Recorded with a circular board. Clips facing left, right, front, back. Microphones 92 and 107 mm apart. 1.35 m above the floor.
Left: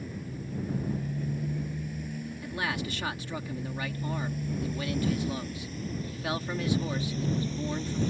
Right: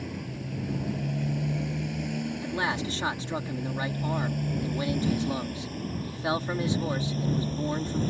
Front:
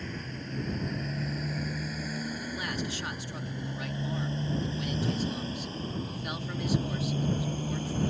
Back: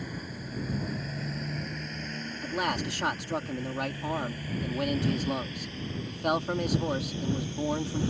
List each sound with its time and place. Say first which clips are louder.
0.0 s a motorcycle: right 3 dB, even; 100° right; by 8.1 s 45° right
2.4 s a man speaking: right 1 dB, back 4 dB; 150° right